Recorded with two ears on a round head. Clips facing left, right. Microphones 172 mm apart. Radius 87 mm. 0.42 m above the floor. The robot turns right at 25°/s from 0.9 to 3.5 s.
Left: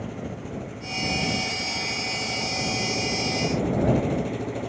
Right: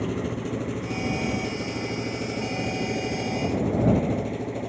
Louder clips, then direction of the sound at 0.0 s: Right 6 dB; 65° right.